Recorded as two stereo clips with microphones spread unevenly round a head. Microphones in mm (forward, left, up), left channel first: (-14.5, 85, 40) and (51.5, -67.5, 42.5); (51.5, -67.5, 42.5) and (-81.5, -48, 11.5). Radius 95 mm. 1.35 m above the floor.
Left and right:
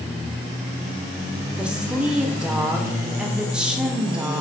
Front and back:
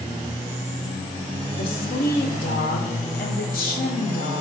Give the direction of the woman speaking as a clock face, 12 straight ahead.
11 o'clock.